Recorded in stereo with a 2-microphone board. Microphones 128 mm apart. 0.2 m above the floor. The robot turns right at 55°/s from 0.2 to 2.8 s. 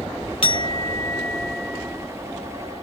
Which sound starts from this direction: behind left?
A clink, at 0.4 s.